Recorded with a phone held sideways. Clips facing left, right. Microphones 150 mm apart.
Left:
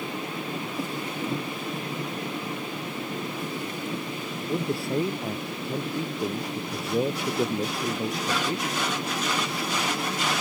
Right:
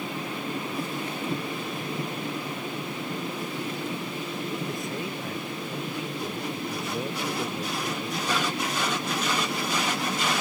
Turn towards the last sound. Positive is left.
turn(degrees=30)  # may be behind; listen again after turning